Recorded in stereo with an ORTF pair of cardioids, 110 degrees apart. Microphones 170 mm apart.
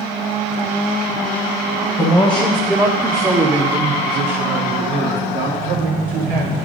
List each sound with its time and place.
2.0 s a man speaking: 15° left, 1.2 m; by 6.6 s 70° right, 2.5 m